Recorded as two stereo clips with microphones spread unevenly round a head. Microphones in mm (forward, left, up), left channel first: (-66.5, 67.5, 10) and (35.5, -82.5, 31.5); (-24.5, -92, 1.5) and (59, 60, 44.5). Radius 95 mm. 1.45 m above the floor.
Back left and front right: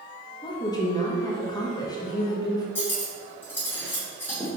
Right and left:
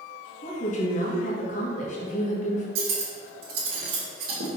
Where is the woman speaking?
170° right, 1.9 m.